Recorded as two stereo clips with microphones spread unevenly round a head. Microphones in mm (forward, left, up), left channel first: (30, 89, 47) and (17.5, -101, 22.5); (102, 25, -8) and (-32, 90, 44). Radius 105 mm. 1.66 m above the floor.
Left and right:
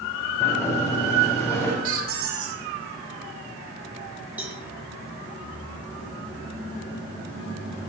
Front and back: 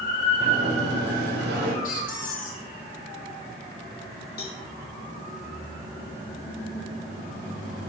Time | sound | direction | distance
0.4 | a sliding door | 165° left | 4.5 m
1.8 | a squeak | 85° right | 2 m
4.4 | a cowbell | 10° right | 3.5 m